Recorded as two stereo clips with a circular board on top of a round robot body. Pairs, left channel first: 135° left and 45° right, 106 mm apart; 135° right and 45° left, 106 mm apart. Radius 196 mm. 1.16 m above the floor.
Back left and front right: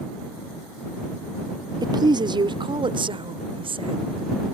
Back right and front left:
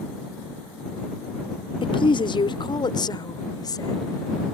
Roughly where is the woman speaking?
Right.